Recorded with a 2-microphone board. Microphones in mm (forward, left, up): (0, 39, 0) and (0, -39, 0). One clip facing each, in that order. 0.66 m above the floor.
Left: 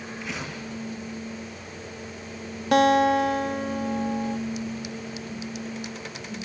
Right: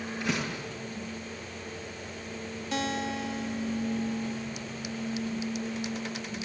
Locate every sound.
0.2 s a door slam: 85° right, 8 m
2.7 s a guitar: 65° left (ahead or behind), 0.5 m